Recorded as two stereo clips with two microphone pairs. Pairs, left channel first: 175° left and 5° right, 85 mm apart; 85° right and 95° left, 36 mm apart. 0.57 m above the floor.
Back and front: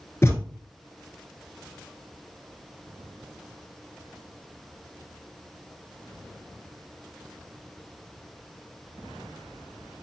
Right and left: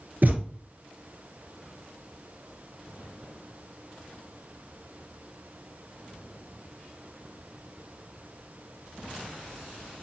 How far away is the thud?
About 1.0 m.